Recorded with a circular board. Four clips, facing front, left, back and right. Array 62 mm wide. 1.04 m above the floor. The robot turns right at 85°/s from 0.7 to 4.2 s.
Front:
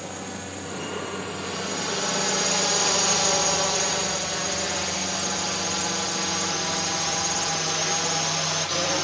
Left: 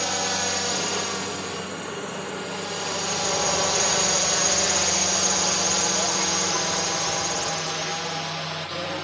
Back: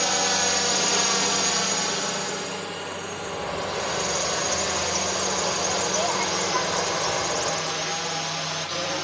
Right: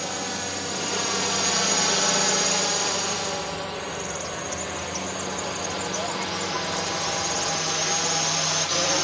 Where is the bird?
85° left; by 8.1 s straight behind.